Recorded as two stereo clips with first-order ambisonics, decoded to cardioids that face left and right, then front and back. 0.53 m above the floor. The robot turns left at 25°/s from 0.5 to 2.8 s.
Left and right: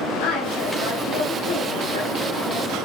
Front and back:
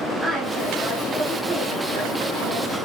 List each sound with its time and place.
0.2 s a woman speaking: 90° left, 3 m; by 2.8 s 35° left, 3 m